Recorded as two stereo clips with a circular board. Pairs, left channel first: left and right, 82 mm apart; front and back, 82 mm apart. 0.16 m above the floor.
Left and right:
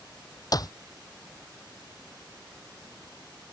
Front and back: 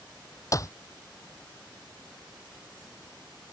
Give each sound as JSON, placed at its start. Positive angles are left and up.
{"t": 0.5, "sound": "a clap", "azimuth_deg": 50}